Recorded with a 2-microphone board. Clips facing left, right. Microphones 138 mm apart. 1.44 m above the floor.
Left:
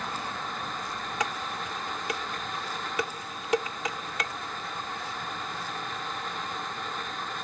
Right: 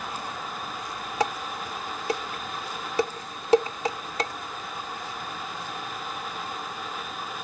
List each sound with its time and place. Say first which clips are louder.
1.2 s dishes clattering: right 6 dB; 35° right (ahead or behind)